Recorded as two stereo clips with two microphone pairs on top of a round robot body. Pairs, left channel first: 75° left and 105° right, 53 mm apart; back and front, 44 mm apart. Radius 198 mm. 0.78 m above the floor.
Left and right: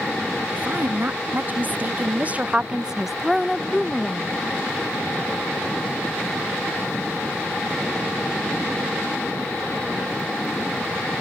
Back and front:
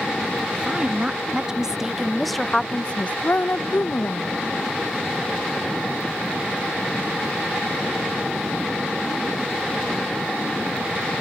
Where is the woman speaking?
65° right; by 4.4 s 150° left.